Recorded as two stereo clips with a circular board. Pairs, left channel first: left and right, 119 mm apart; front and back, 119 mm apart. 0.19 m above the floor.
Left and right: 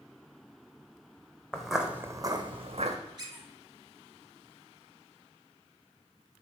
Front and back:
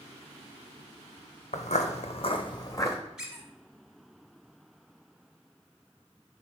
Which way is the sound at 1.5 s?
5° left.